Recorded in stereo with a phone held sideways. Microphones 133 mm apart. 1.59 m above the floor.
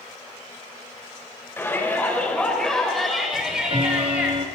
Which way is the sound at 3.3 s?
35° right (ahead or behind).